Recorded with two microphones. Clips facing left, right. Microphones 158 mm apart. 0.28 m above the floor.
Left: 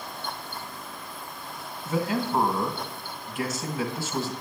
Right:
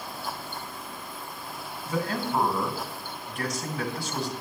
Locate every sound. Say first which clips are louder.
1.9 s a man speaking: left 2 dB; 5° left (ahead or behind), 1.8 m